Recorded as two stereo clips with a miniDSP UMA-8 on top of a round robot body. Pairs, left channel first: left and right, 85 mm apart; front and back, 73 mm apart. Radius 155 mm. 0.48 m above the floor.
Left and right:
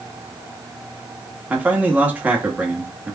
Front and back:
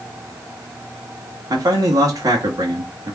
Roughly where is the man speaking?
Behind right.